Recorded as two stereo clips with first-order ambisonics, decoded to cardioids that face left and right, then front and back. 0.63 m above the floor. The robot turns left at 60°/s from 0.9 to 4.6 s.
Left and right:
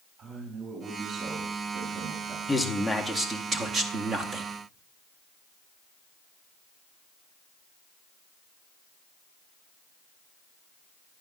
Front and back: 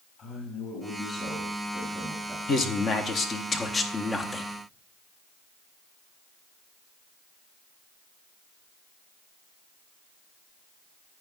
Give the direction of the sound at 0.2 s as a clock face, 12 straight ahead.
1 o'clock.